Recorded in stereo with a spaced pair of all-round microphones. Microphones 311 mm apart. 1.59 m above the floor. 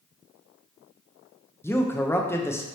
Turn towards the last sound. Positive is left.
turn(degrees=10)  # may be behind; listen again after turning